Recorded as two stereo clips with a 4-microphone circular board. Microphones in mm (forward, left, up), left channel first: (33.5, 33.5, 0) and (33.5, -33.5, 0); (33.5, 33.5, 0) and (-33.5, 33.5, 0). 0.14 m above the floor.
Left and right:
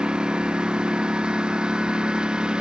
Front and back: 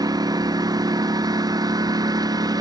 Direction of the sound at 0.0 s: 170° right.